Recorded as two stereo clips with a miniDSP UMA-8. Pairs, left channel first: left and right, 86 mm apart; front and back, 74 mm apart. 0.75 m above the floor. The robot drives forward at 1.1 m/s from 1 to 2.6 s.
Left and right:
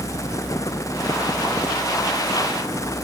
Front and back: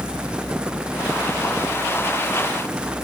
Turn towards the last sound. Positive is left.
No sound to turn to.